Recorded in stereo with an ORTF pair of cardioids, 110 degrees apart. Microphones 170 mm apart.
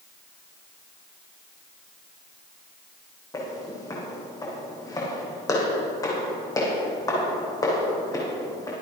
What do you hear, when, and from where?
3.3 s footsteps: 20° left, 5 m